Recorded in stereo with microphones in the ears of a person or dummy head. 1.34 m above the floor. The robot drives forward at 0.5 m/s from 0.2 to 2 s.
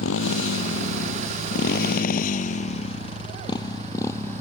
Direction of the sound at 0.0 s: 80° left.